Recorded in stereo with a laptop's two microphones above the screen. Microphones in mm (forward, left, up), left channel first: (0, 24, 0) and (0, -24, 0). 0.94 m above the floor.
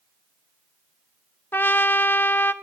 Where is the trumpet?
45° left (ahead or behind), 1.0 m.